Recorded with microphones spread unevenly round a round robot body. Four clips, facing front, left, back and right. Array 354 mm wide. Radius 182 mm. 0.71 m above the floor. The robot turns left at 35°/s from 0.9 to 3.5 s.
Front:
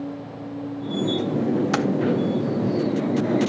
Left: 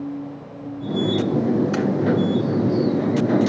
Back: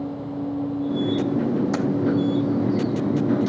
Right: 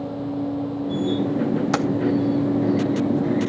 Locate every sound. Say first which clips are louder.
1.7 s keys jangling: even, front 1 dB; 55° right, 1.4 m; by 1.9 s 60° right, 1.4 m